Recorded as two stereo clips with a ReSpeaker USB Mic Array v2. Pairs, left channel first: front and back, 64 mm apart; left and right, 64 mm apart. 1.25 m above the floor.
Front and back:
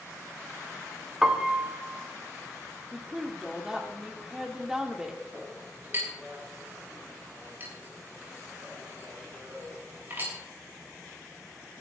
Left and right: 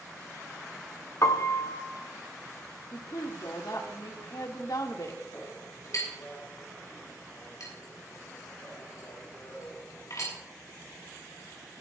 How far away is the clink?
About 8 m.